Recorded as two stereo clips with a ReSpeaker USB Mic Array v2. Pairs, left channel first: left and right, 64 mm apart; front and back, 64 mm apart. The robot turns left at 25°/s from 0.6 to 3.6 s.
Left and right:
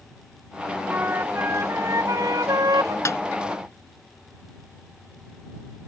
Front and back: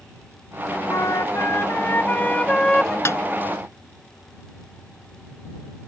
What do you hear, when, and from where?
0.9 s a flute: 30° right; by 3.0 s 80° right
3.0 s a snare drum: 50° left; by 3.2 s 45° left